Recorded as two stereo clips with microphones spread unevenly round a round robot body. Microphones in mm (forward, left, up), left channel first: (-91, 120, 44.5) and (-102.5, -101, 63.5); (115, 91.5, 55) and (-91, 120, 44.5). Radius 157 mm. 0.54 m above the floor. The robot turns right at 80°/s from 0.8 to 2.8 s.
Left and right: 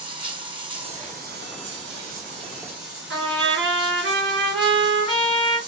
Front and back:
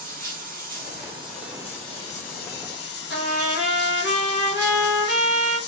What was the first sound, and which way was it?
Running water, 160° right.